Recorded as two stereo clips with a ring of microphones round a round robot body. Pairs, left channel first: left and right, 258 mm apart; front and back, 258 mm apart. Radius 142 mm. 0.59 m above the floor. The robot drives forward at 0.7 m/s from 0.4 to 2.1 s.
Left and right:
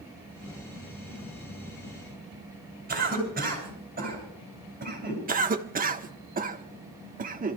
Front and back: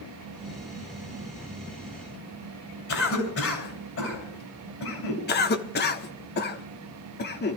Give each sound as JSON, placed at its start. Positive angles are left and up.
{"t": 2.9, "sound": "a cough", "azimuth_deg": -35, "distance_m": 7.0}
{"t": 5.3, "sound": "a cough", "azimuth_deg": -40, "distance_m": 1.5}